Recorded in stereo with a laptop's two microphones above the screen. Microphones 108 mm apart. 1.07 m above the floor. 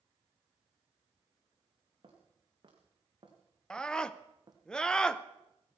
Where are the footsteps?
45° right (ahead or behind), 4 m; by 4.6 s 40° right (ahead or behind), 2.5 m.